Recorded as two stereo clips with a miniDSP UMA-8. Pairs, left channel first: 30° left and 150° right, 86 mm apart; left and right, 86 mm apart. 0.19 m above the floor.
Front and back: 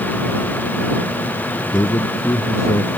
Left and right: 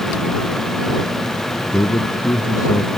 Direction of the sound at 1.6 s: 65° left.